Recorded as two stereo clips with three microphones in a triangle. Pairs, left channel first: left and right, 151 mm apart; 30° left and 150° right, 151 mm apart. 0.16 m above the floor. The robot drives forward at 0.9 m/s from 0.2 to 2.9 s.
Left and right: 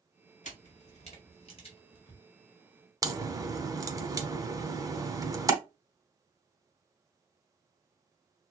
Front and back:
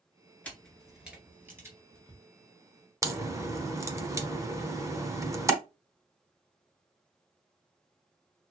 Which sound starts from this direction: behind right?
A crack, at 3.0 s.